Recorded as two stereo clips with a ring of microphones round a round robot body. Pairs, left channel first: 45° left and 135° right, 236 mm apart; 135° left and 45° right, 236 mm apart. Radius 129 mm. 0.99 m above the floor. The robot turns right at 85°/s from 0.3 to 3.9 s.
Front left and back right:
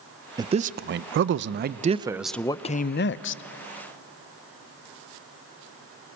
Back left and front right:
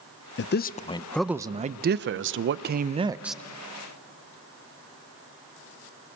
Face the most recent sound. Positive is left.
turn(degrees=95)